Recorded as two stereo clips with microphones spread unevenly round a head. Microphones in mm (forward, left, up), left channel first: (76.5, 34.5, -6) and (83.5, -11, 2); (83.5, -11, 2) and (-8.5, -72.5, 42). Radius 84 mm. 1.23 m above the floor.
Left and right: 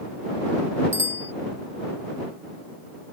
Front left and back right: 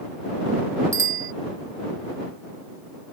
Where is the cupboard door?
No cupboard door in this recording.